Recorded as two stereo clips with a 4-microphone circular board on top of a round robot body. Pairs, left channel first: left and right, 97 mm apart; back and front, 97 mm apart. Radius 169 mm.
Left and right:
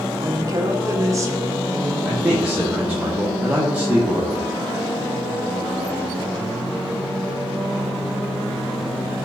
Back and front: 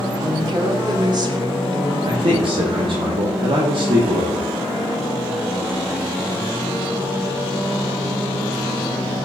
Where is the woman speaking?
40° right, 1.3 m.